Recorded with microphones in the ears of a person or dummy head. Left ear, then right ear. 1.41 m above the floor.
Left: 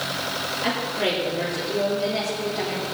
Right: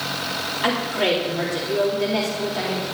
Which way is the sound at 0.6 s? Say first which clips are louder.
Right 4 dB; 40° right (ahead or behind).